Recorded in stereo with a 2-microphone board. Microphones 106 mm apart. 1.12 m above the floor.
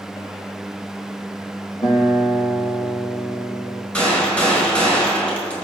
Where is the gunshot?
15° left (ahead or behind), 4.5 m.